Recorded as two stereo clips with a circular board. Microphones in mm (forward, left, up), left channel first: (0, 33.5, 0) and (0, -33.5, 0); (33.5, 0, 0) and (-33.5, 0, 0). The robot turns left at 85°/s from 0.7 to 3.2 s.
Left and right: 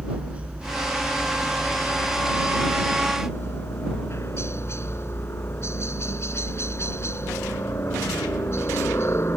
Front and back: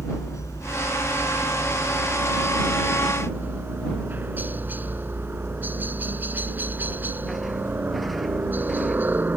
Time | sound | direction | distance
0.0 | a helicopter | 20° right | ?